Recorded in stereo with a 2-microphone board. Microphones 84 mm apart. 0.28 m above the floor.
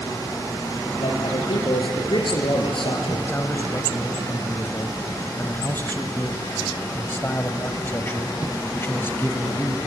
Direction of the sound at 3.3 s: 30° left (ahead or behind).